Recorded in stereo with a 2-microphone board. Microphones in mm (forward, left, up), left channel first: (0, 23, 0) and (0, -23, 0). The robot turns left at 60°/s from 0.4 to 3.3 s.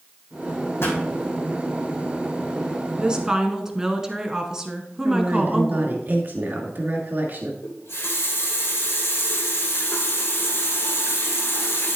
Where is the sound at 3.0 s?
25° right (ahead or behind), 1.2 m; by 6.0 s 15° right (ahead or behind), 1.2 m.